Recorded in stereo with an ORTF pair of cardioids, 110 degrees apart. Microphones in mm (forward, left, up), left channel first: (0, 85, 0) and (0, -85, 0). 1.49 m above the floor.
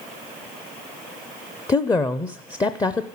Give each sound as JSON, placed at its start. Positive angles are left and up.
{"t": 1.7, "sound": "a woman speaking", "azimuth_deg": 20, "distance_m": 0.6}